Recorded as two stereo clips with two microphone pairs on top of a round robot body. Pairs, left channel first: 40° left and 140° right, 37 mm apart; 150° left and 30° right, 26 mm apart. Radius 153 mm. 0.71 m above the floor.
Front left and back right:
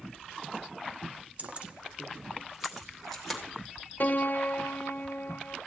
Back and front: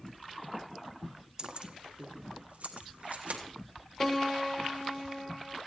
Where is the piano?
75° left, 0.7 m.